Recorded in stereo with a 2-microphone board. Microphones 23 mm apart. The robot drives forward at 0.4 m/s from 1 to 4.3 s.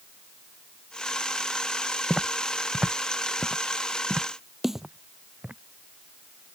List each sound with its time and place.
2.1 s footsteps: 40° right (ahead or behind); by 5.6 s 75° right (ahead or behind)
4.6 s a snare drum: 10° right (ahead or behind)